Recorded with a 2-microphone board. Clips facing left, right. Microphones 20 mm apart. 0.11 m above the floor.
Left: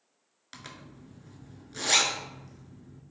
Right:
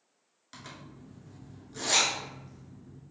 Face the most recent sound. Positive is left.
turn(degrees=25)  # may be behind; listen again after turning